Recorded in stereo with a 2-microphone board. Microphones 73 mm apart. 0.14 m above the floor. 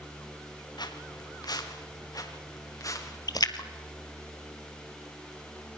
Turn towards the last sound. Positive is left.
turn(degrees=65)  # may be behind; listen again after turning